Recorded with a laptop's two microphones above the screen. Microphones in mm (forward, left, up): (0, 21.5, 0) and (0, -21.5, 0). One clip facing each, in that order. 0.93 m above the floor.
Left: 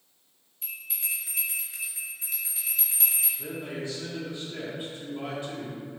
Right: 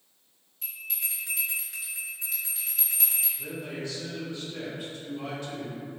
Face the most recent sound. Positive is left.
turn(degrees=20)  # may be behind; listen again after turning